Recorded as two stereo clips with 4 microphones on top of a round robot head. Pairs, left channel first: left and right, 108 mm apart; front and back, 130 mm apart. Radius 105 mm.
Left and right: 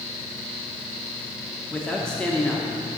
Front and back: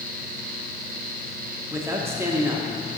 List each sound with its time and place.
1.7 s a man speaking: 160° left, 1.0 m